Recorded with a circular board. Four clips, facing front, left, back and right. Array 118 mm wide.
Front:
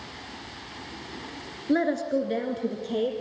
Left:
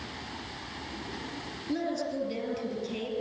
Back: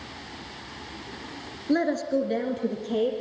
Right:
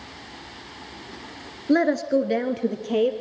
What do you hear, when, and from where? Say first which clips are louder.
1.7 s a woman speaking: right 12 dB, even; 85° right, 2.5 m; by 3.1 s 90° right, 4 m